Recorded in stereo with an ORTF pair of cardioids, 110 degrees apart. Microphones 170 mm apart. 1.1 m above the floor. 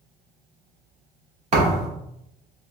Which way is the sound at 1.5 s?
45° right.